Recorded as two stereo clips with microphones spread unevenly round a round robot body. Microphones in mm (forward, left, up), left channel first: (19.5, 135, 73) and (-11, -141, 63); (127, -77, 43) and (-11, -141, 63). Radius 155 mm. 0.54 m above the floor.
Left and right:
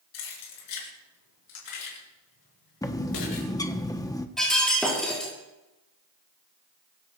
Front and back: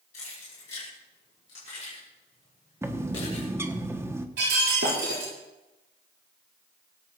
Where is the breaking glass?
170° left, 7.5 m.